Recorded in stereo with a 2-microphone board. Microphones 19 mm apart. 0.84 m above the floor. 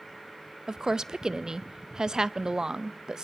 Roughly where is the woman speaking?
Right.